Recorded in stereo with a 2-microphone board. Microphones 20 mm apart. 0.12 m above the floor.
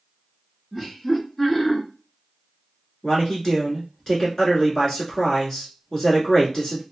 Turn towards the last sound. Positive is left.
turn(degrees=25)  # may be behind; listen again after turning